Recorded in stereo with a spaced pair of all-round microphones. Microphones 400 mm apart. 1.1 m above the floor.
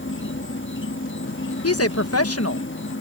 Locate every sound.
0.0 s an insect: 30° left (ahead or behind)
1.6 s a woman speaking: 35° left (ahead or behind)